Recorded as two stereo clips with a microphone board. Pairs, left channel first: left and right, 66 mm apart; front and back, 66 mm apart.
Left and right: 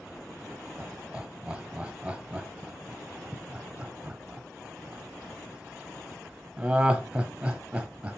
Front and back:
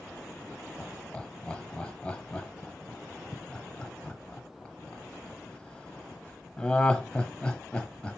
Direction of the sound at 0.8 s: 50° right.